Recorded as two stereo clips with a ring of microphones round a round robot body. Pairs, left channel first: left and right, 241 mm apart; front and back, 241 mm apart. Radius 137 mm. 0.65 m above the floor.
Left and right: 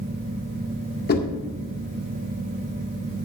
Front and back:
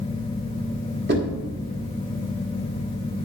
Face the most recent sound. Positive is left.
turn(degrees=135)